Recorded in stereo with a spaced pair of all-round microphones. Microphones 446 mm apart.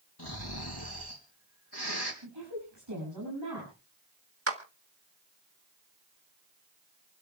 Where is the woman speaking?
60° right (ahead or behind), 8.5 m.